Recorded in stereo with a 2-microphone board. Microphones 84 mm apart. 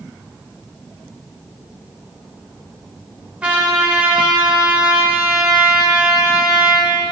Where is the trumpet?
15° right (ahead or behind), 1.2 m.